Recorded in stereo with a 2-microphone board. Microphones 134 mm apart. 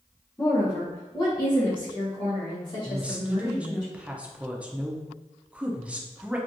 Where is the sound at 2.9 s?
10° right (ahead or behind), 0.6 m.